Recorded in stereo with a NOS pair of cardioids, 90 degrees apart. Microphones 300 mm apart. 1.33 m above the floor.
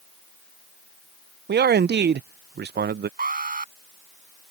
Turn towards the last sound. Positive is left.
turn(degrees=-30)